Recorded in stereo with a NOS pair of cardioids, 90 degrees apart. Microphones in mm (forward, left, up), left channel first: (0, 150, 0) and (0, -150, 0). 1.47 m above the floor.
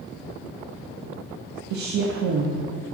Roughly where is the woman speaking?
Ahead right.